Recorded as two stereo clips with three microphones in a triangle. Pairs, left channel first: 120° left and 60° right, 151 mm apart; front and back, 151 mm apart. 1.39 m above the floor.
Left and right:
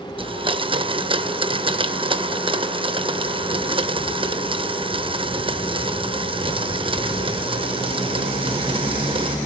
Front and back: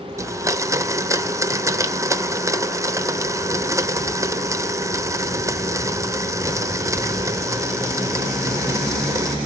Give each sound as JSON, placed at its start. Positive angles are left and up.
{"t": 0.2, "sound": "a blender", "azimuth_deg": -110, "distance_m": 0.7}